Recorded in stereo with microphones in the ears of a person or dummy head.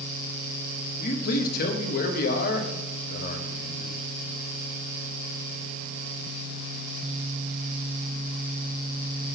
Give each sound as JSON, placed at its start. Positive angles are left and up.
{"t": 1.0, "sound": "a man speaking", "side_deg": 55, "distance_m": 0.9}